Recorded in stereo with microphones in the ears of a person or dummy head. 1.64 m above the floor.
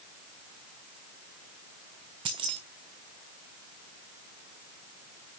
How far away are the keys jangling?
About 0.7 m.